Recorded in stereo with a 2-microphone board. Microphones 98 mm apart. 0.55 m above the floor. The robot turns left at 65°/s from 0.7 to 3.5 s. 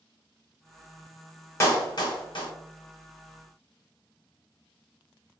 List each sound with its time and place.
1.6 s a clap: 30° left (ahead or behind), 0.8 m; by 2.5 s 55° left (ahead or behind), 0.8 m